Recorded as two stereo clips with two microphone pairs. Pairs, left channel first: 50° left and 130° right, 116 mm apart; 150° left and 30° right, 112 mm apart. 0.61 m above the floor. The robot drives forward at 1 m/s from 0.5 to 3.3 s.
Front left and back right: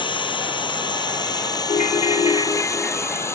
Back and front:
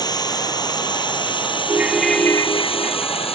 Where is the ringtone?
40° left; by 3.4 s 150° left.